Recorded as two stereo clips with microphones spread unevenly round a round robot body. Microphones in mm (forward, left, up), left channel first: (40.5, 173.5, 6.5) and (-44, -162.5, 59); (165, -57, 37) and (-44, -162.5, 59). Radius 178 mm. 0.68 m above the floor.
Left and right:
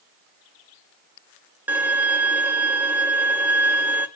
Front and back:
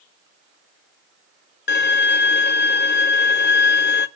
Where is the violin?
15° right, 0.6 m.